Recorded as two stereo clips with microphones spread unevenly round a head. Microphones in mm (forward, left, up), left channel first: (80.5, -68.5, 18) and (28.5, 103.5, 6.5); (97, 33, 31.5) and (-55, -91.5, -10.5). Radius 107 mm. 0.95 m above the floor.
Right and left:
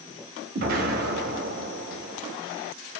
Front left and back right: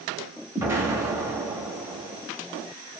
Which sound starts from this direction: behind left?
An explosion, at 0.6 s.